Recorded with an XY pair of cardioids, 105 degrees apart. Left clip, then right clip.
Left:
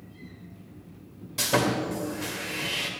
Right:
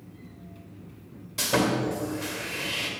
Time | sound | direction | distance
1.4 | sawing | 5° left | 2.5 m